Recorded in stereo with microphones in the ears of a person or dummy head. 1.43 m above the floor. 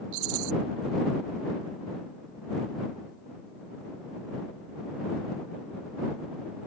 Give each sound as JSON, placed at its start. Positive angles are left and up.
{"t": 0.1, "sound": "a rattle", "side_deg": -80}